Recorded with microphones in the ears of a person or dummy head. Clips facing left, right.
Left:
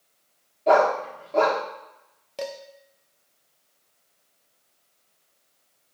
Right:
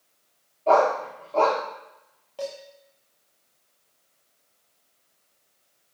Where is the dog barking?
15° left (ahead or behind), 1.3 m.